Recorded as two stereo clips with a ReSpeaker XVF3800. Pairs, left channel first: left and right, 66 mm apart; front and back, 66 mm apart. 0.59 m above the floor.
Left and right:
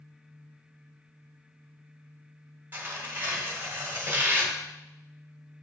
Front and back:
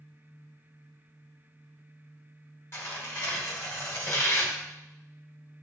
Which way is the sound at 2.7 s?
35° right.